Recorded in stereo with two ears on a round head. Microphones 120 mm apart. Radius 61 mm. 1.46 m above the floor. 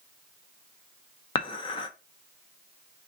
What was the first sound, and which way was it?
Dishes clattering, 40° left (ahead or behind).